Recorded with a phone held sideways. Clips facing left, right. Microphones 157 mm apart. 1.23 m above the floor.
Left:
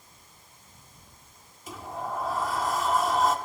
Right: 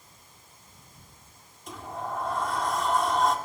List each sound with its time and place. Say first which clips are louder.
1.7 s a sliding door: even; 5° left (ahead or behind), 1.3 m